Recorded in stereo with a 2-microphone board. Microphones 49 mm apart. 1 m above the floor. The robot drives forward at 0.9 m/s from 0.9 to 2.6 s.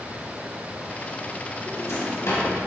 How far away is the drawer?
About 2 m.